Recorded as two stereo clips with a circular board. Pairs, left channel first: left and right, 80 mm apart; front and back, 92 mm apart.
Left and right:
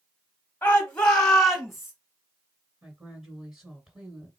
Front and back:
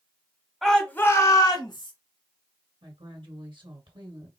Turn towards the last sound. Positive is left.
turn(degrees=-170)